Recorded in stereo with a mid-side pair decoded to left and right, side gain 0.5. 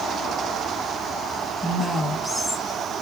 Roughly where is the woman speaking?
Ahead.